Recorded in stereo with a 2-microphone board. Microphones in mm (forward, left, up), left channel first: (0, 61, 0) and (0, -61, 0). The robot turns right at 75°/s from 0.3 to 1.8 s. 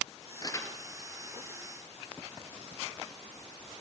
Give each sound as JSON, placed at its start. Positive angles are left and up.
{"t": 0.4, "sound": "crumpling", "side_deg": 35, "distance_m": 3.0}